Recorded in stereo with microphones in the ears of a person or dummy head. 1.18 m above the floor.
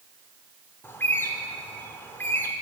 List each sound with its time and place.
0.8 s a bird: 10° left (ahead or behind), 1.0 m